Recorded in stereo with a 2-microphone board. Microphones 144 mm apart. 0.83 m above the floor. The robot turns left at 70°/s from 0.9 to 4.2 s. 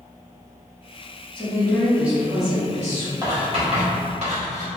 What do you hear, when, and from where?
1.4 s a woman speaking: 40° left, 1.6 m; by 3.1 s 85° right, 1.6 m
3.2 s writing: 25° right (ahead or behind), 1.2 m; by 4.7 s 50° right (ahead or behind), 1.2 m